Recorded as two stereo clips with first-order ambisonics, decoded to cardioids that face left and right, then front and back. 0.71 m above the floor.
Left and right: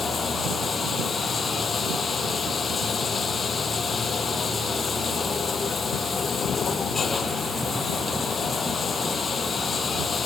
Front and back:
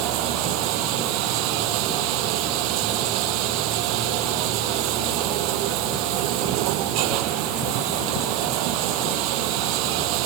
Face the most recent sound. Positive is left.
turn(degrees=160)